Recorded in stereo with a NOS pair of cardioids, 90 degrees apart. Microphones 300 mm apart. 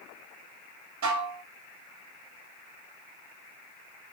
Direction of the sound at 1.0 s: 65° right.